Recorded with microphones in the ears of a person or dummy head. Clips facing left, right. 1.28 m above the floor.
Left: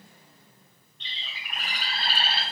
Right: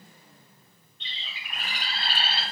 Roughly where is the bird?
Left.